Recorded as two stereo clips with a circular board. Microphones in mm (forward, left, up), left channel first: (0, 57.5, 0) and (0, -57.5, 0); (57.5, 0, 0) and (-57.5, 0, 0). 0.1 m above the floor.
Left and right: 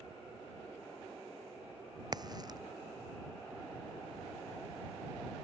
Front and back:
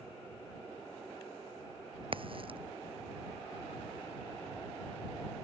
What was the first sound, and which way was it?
A crack, 140° right.